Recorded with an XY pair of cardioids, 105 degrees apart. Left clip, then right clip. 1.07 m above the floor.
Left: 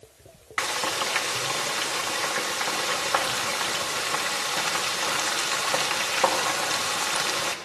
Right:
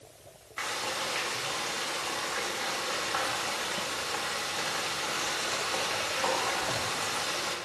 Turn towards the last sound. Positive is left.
turn(degrees=65)